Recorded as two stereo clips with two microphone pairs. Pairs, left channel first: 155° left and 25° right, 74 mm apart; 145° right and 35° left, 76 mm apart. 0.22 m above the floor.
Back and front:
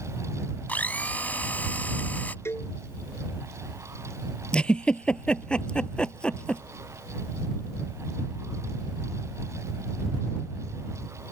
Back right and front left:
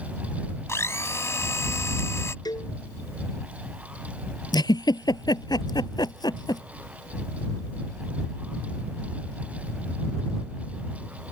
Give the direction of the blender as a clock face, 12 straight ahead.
5 o'clock.